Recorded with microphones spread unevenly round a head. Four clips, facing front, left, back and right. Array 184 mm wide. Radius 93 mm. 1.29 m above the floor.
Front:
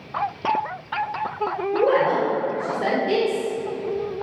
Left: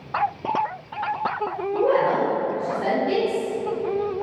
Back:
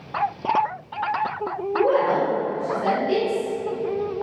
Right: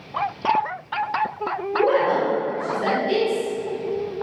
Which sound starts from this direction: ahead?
A woman speaking, at 1.7 s.